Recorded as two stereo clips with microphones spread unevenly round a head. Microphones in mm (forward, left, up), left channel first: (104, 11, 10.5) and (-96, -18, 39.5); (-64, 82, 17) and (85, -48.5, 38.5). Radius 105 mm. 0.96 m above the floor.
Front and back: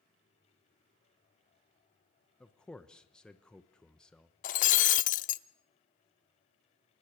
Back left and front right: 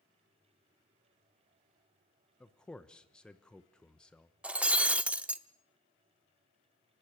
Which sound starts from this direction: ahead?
Breaking glass, at 4.4 s.